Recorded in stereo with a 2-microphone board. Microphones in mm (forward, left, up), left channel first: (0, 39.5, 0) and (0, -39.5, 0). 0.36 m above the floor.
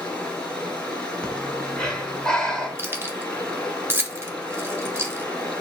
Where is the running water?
10° left (ahead or behind), 1.4 m.